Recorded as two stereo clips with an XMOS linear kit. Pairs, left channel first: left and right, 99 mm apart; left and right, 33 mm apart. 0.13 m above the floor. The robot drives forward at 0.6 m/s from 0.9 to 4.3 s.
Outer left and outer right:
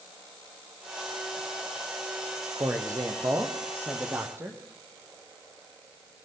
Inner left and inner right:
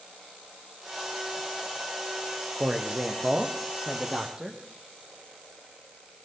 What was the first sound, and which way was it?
A man speaking, 30° right (ahead or behind).